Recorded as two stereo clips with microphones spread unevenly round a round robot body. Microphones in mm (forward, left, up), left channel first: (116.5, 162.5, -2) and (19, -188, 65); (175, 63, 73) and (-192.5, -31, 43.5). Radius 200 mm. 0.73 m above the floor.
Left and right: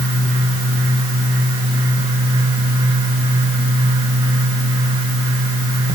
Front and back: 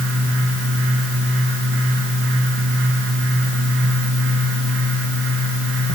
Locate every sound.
Only background noise.